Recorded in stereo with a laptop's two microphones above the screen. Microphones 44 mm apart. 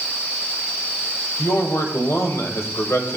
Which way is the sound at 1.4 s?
80° left.